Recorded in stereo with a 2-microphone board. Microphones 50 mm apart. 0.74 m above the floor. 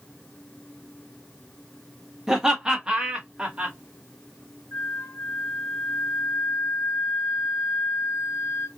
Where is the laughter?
10° right (ahead or behind), 1.0 m; by 3.8 s 25° right (ahead or behind), 1.6 m.